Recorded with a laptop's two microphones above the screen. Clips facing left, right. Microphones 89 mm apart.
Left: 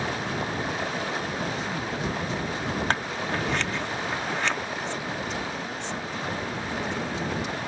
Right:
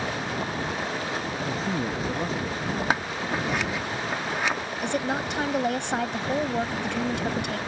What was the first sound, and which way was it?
A man speaking, 35° right (ahead or behind).